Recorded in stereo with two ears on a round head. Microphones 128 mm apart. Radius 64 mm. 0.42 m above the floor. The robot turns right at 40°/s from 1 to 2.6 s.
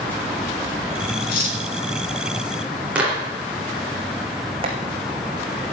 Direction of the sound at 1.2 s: 75° left (ahead or behind).